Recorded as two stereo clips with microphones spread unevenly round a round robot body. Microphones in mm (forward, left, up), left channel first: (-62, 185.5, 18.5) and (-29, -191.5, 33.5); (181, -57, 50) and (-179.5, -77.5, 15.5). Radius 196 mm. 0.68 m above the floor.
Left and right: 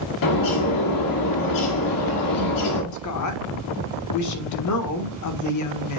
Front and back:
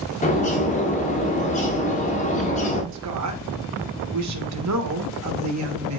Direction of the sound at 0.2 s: 75° left.